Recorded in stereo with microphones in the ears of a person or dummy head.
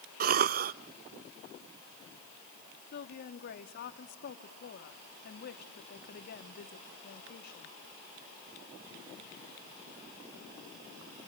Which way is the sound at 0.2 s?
50° right (ahead or behind).